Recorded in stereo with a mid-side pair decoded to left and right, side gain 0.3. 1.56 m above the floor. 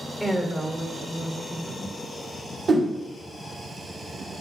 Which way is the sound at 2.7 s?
60° right.